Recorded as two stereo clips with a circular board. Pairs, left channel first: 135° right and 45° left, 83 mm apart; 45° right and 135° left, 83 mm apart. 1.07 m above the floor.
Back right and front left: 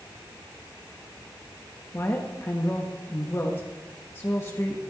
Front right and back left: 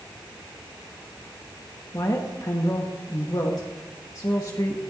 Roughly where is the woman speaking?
Right.